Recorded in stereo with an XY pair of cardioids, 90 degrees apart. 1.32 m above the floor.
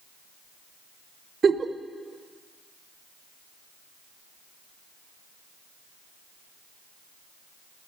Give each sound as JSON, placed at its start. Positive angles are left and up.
{"t": 1.4, "sound": "a giggle", "azimuth_deg": -40, "distance_m": 0.8}